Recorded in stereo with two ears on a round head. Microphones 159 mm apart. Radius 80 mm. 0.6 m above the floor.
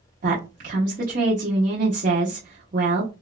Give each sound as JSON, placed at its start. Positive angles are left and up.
{"t": 0.2, "sound": "a woman speaking", "side_deg": -45, "distance_m": 0.8}